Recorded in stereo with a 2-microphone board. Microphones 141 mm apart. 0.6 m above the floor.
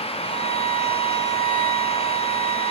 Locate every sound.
0.2 s a violin: 55° right (ahead or behind), 4 m